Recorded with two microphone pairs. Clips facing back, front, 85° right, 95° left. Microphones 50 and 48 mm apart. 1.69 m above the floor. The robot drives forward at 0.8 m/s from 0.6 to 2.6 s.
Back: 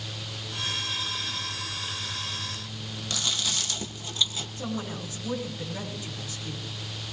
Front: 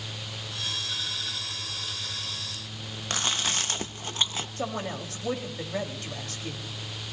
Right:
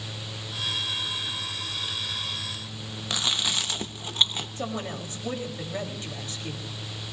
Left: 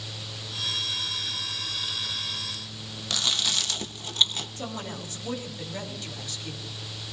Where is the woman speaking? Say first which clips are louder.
Front 1 dB, right 5 dB; 25° right, 3.5 m.